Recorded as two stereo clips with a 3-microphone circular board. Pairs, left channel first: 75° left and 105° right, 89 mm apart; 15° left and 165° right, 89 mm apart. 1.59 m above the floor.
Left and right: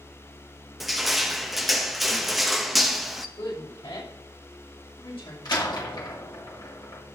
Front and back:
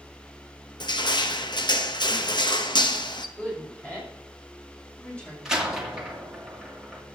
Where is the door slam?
110° left, 2.5 m.